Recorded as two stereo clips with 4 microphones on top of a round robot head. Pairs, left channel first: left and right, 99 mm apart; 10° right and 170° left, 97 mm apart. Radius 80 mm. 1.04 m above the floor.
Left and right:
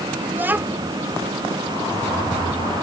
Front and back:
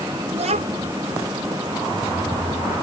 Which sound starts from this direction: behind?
A child speaking, at 0.3 s.